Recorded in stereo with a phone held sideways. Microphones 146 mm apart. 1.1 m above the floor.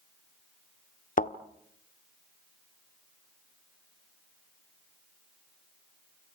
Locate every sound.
1.2 s a thud: 60° left (ahead or behind), 1.2 m